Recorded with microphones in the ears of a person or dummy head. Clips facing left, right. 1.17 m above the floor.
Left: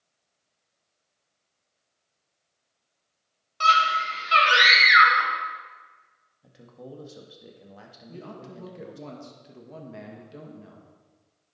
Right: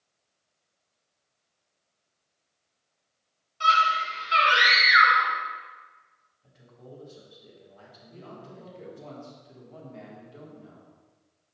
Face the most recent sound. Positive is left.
turn(degrees=70)  # may be behind; listen again after turning